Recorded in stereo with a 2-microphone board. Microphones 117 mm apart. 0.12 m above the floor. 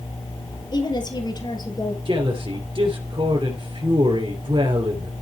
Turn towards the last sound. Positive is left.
turn(degrees=-45)  # may be behind; listen again after turning